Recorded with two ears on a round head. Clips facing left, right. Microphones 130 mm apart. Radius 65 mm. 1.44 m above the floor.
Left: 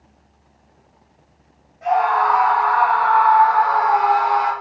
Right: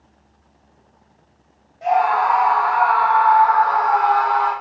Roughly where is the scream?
Right.